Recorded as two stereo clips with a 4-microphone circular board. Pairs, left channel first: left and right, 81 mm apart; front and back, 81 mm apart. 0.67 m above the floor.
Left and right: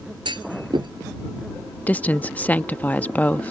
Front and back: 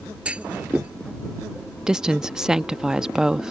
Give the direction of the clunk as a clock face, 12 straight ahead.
4 o'clock.